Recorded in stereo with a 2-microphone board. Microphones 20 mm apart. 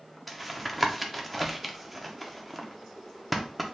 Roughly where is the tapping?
Centre.